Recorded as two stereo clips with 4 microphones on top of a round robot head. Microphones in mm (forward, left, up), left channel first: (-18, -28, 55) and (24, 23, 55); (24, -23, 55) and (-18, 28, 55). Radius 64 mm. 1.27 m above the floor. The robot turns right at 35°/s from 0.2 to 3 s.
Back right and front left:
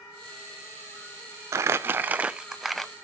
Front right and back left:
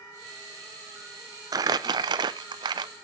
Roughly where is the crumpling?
Left.